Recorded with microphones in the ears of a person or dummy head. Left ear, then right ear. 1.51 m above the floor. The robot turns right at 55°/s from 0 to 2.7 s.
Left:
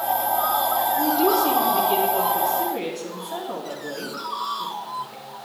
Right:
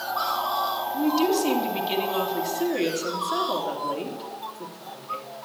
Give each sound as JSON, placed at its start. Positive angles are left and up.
{"t": 0.9, "sound": "a woman speaking", "azimuth_deg": -115, "distance_m": 3.0}